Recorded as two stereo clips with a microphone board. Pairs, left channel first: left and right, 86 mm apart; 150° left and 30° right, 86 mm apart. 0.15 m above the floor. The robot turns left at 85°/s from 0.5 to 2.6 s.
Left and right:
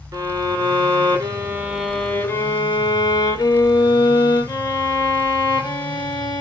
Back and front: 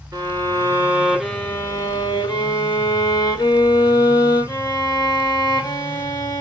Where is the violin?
60° right, 0.7 m; by 6.4 s 120° left, 0.7 m.